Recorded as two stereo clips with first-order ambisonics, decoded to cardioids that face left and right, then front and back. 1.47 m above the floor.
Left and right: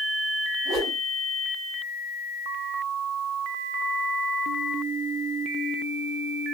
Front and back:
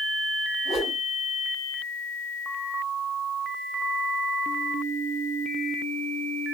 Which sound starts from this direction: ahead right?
A whoosh, at 0.7 s.